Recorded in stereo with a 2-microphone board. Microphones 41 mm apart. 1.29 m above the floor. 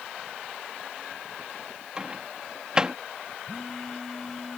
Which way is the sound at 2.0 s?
20° right (ahead or behind).